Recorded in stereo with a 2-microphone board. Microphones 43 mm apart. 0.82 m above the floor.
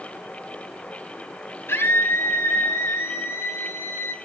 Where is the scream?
65° left (ahead or behind), 6 m; by 4.2 s 80° left, 5 m.